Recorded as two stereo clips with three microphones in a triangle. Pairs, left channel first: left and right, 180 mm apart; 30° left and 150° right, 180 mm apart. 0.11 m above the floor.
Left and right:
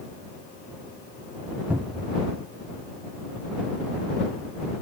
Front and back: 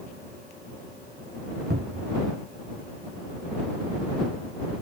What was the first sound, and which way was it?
A cupboard door, 170° right.